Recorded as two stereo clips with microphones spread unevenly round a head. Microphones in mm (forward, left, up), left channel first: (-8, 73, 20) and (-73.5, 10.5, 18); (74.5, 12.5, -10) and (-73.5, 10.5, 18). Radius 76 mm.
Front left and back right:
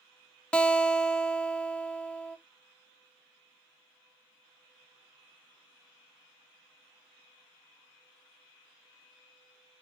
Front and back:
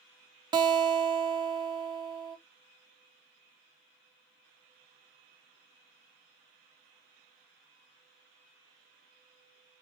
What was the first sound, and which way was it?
A guitar, 120° left.